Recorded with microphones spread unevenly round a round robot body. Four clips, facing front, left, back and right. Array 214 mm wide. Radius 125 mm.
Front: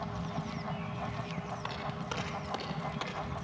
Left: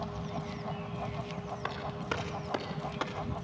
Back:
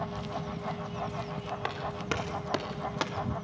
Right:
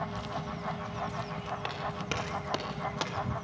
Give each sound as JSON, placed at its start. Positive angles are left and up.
{"t": 1.6, "sound": "footsteps", "azimuth_deg": -175, "distance_m": 3.0}